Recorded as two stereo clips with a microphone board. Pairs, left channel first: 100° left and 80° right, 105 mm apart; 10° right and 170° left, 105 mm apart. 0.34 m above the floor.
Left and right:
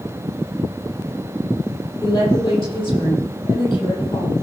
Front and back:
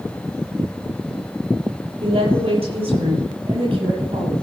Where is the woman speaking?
150° left, 7.5 m; by 4.3 s 140° left, 8.5 m.